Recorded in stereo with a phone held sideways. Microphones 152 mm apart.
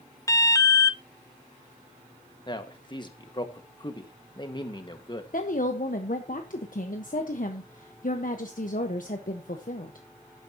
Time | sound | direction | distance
0.3 | an alarm | 20° left (ahead or behind) | 0.6 m
2.5 | a man speaking | 30° left (ahead or behind) | 1.6 m
5.3 | a woman speaking | 60° left (ahead or behind) | 1.1 m